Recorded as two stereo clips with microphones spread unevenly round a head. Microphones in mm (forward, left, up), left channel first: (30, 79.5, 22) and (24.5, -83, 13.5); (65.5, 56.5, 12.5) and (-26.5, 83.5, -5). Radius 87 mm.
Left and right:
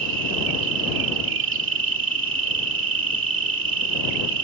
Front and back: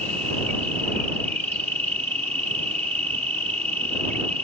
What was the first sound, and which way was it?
An insect, 95° right.